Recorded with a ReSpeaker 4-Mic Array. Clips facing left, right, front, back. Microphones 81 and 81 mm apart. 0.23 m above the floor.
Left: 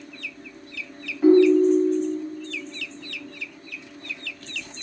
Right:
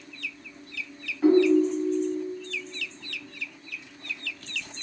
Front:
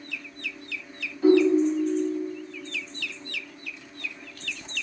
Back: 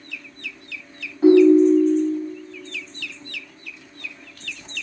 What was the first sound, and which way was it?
A ringtone, 175° left.